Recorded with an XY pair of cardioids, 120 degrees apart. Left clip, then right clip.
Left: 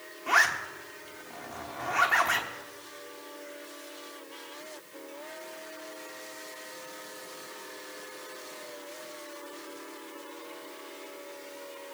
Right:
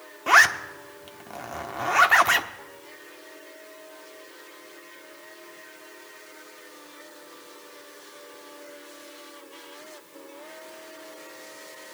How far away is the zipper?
About 1.1 m.